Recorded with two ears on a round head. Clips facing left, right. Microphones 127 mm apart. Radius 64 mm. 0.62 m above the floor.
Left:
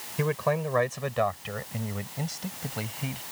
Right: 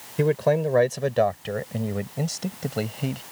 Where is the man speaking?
40° right (ahead or behind); by 3.2 s 55° right (ahead or behind).